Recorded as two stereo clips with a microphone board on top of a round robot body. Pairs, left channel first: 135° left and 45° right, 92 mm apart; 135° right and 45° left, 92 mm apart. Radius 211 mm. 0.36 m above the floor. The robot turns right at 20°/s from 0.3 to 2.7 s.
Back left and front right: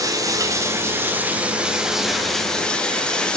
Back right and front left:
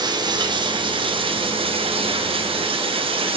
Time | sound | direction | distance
0.0 | running water | 5° left | 3 m